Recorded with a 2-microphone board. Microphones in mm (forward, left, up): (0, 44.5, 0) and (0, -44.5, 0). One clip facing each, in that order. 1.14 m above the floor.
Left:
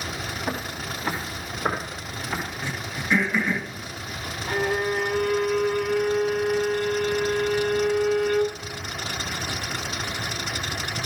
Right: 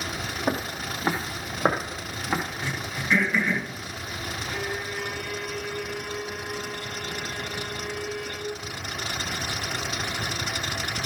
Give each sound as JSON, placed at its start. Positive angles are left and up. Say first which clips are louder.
{"t": 0.5, "sound": "footsteps", "louder": "right 5 dB", "side_deg": -35, "distance_m": 1.4}
{"t": 2.6, "sound": "throat clearing", "louder": "even", "side_deg": 10, "distance_m": 2.0}
{"t": 4.5, "sound": "a violin", "louder": "left 10 dB", "side_deg": 75, "distance_m": 0.6}